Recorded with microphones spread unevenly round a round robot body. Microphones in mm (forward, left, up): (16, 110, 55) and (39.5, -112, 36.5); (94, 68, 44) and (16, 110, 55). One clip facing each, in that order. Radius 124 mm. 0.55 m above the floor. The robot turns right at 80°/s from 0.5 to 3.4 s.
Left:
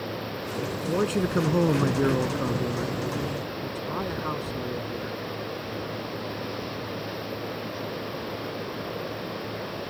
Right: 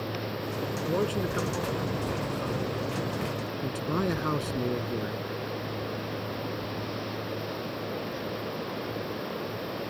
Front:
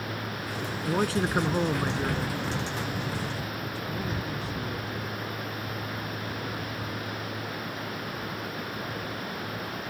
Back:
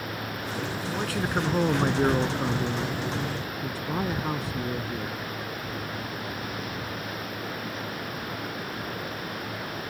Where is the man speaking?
10° left; by 5.2 s 145° right.